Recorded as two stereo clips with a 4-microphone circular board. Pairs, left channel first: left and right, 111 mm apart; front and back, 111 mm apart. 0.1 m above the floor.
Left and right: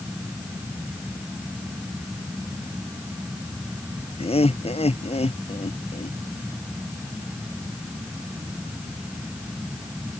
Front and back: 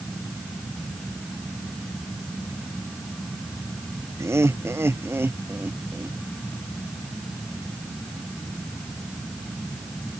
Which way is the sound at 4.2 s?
115° left.